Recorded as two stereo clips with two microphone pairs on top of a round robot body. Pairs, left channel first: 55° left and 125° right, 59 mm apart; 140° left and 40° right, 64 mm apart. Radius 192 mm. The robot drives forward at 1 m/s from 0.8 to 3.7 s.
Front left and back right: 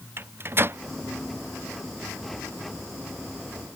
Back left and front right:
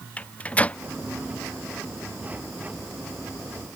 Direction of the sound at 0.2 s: 140° right.